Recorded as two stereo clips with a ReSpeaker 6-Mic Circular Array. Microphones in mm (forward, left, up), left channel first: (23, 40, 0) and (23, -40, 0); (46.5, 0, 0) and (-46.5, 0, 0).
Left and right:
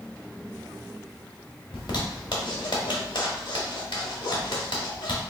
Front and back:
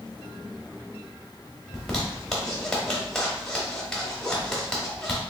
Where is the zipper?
85° left, 1.1 m.